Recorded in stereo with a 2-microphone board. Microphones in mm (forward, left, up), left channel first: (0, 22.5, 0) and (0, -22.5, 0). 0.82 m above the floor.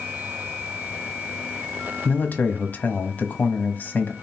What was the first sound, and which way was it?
A man speaking, 45° left (ahead or behind).